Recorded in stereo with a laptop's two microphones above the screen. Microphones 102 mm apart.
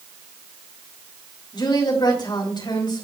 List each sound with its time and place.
1.5 s a woman speaking: 45° left (ahead or behind), 4.5 m